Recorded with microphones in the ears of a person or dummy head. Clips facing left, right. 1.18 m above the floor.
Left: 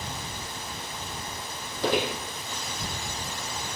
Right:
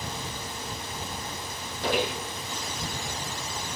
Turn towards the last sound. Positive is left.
turn(degrees=50)  # may be behind; listen again after turning